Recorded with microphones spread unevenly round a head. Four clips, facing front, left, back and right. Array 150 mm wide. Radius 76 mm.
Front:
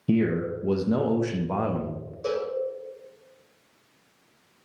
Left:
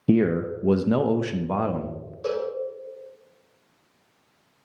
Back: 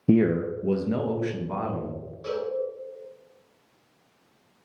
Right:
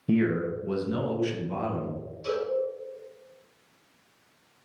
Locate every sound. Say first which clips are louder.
0.1 s a man speaking: left 4 dB, back 3 dB; 135° left, 0.6 m; by 2.1 s 45° left, 1.2 m
2.2 s a cowbell: left 2 dB, front 2 dB; 60° left, 3.5 m